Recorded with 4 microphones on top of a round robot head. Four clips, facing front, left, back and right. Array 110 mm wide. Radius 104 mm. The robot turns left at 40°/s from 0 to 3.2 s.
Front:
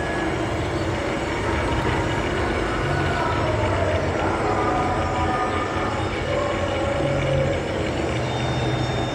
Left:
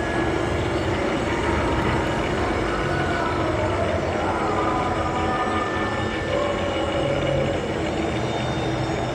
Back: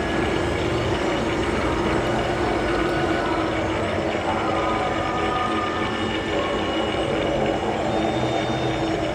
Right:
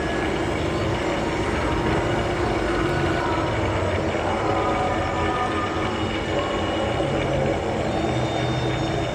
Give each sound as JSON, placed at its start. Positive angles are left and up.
{"t": 0.0, "sound": "an insect", "azimuth_deg": 145, "distance_m": 9.0}